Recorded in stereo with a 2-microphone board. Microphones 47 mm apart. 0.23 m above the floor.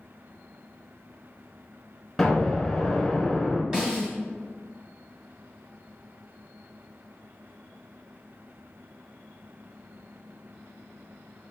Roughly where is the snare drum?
Centre.